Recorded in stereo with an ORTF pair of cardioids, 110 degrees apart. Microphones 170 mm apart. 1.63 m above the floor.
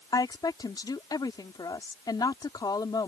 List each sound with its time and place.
0.1 s a woman speaking: 25° left